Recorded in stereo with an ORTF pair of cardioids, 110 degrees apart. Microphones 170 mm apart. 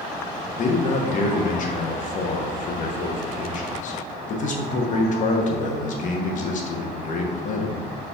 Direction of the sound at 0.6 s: 50° left.